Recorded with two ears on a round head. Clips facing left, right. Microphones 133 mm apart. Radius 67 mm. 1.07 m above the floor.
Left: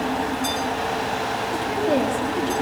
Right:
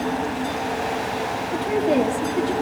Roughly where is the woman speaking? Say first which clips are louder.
Right 2 dB; centre.